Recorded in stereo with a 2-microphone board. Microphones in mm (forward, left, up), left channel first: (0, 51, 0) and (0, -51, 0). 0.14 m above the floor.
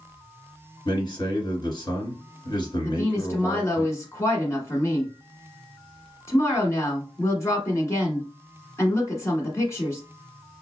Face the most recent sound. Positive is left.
turn(degrees=30)  # may be behind; listen again after turning